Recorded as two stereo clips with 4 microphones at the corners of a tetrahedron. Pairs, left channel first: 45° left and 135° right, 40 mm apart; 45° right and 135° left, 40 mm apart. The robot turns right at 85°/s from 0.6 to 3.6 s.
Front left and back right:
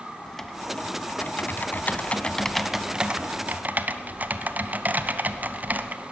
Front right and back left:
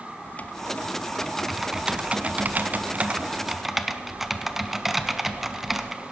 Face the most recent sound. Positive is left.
turn(degrees=-140)